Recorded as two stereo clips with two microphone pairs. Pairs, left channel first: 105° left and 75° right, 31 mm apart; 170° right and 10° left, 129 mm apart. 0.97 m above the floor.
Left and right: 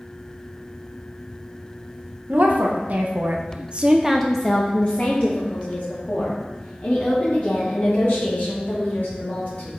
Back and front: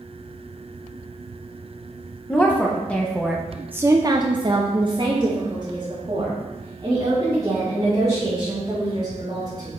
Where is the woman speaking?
95° right, 1.5 m; by 9.7 s 70° left, 4.5 m.